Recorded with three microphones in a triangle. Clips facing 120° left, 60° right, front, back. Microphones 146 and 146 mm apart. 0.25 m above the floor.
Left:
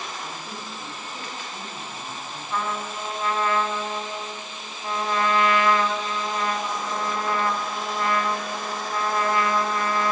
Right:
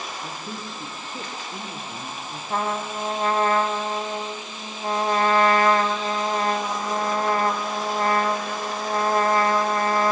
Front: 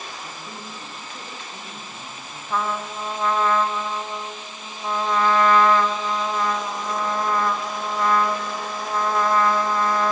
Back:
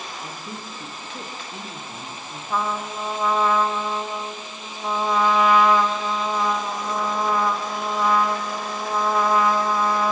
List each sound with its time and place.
0.2 s a woman speaking: 115° right, 3.5 m
2.5 s a trumpet: 100° right, 1.3 m